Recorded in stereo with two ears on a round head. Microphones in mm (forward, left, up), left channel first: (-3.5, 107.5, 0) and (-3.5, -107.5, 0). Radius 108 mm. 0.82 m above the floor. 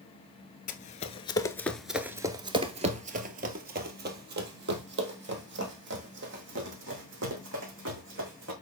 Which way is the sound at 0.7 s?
35° left (ahead or behind).